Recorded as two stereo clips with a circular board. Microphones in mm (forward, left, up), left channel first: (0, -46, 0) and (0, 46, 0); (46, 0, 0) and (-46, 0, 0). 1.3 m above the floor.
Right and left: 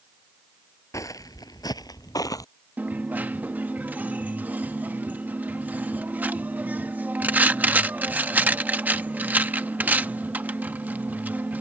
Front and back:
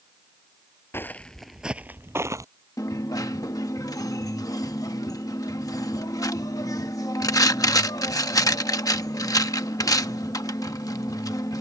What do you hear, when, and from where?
0.9 s footsteps: 55° right; by 2.5 s 130° right
2.8 s a dropped coin: 30° left